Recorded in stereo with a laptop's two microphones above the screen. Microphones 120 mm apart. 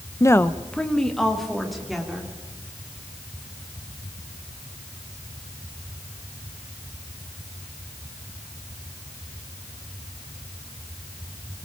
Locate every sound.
0.2 s a woman speaking: 30° left (ahead or behind), 0.6 m; by 2.3 s centre (ahead or behind), 3.5 m